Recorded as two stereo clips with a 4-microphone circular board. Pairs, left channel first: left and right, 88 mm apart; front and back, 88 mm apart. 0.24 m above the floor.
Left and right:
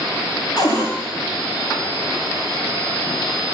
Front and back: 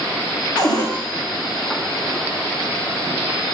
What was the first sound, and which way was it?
A cupboard door, 45° left.